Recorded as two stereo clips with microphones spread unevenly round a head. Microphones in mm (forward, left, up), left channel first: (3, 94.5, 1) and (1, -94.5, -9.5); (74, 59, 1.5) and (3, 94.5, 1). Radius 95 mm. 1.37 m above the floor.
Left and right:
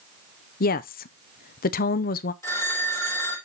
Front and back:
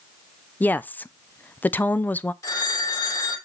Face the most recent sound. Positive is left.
turn(degrees=15)